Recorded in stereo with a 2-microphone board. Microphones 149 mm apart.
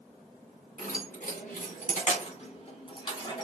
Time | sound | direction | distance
0.8 | keys jangling | 75° left (ahead or behind) | 2.5 m